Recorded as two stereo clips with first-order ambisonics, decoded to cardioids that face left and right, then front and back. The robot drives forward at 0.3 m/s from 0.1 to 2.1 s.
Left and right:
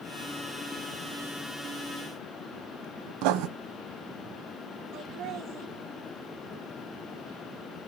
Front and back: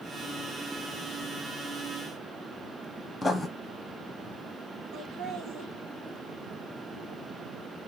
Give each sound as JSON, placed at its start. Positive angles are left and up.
{"t": 3.2, "sound": "writing", "azimuth_deg": -85, "distance_m": 0.8}
{"t": 4.9, "sound": "laughter", "azimuth_deg": -130, "distance_m": 1.6}